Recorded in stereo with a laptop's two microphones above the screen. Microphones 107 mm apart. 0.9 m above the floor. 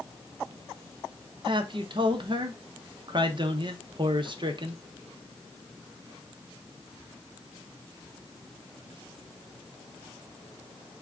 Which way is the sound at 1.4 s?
50° right (ahead or behind).